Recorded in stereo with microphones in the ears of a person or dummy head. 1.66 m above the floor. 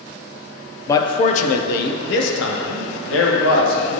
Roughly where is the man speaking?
Centre.